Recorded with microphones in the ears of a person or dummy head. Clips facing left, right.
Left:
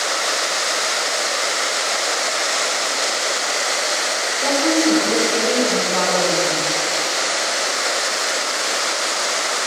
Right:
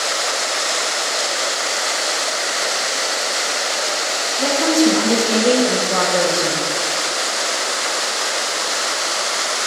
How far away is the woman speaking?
About 1.5 m.